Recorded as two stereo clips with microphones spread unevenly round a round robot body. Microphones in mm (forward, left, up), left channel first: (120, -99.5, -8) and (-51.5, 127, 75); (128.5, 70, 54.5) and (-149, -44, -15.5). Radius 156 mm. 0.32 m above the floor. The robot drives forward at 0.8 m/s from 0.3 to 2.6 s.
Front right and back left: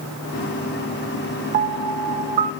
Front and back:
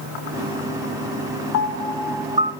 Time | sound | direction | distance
1.5 | a piano | 70° left | 0.6 m